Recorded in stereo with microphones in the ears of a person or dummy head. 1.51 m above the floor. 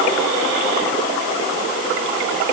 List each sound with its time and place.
Only background noise.